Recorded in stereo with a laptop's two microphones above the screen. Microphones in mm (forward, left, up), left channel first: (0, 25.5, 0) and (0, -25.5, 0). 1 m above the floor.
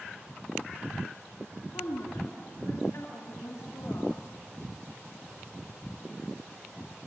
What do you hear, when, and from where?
1.7 s a woman speaking: 70° left (ahead or behind), 2.5 m